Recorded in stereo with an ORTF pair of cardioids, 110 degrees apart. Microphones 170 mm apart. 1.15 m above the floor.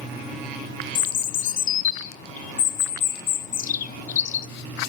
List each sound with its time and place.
0.9 s a bird: 50° left, 0.8 m